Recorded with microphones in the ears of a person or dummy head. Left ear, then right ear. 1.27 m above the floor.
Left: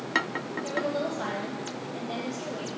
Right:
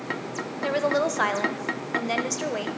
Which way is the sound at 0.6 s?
65° right (ahead or behind).